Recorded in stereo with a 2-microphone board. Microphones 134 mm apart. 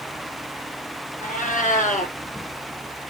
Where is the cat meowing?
80° left, 2.0 m.